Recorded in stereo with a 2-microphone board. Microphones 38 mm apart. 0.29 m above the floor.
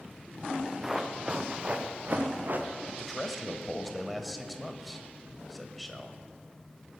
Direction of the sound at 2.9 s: Centre (ahead or behind).